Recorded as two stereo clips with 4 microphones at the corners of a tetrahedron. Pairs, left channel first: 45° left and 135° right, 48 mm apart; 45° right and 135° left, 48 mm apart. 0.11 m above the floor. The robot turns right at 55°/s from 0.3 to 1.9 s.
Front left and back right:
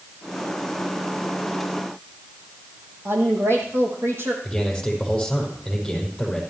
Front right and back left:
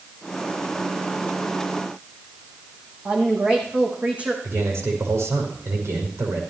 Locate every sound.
3.0 s a woman speaking: 165° right, 4.5 m
4.4 s a man speaking: 130° left, 5.5 m